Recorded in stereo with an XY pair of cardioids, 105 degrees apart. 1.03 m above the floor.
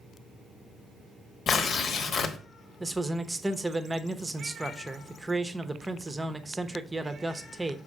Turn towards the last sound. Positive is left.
turn(degrees=-15)